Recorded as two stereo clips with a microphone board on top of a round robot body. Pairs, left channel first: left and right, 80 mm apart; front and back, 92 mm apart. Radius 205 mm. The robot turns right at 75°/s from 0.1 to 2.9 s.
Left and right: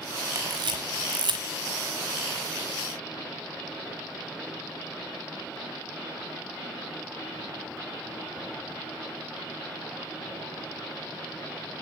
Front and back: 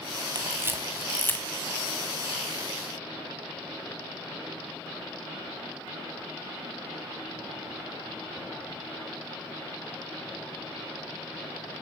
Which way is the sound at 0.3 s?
140° right.